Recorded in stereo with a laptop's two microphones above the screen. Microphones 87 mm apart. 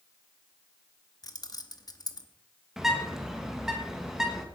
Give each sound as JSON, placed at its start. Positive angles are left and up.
{"t": 1.2, "sound": "keys jangling", "side_deg": 45, "distance_m": 0.8}
{"t": 2.8, "sound": "a bird", "side_deg": -5, "distance_m": 1.4}